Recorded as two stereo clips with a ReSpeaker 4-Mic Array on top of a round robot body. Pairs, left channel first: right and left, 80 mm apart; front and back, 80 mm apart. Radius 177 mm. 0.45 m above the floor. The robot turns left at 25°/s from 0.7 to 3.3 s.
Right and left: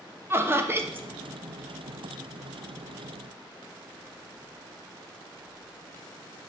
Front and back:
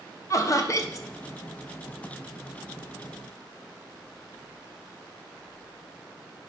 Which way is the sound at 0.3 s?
35° left.